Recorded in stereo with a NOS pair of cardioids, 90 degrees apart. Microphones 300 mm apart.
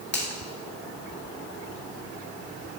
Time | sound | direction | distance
0.1 | a finger snap | 35° left | 2 m